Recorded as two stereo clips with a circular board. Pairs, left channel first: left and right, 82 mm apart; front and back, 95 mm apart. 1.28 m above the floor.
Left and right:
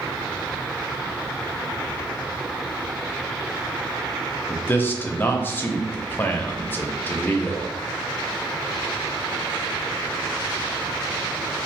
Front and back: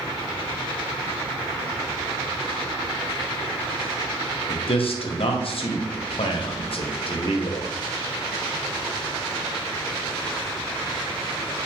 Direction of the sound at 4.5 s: 25° left.